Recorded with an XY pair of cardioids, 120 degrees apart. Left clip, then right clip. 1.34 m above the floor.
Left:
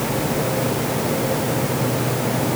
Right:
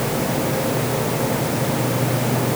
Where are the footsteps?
I don't hear footsteps.